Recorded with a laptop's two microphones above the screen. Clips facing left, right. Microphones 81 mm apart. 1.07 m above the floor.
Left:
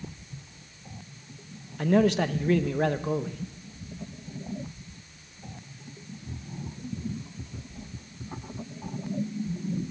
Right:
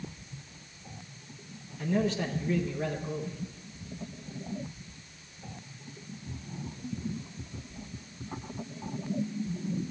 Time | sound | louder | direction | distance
1.8 | a man speaking | left 7 dB | 65° left (ahead or behind) | 0.8 m